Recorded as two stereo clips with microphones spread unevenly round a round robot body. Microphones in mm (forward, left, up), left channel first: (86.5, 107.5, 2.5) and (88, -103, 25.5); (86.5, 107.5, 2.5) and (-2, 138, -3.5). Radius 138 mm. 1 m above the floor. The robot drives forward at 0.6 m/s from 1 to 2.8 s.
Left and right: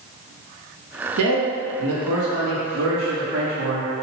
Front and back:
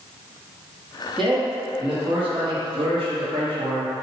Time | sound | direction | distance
1.2 | a man speaking | 105° right | 1.4 m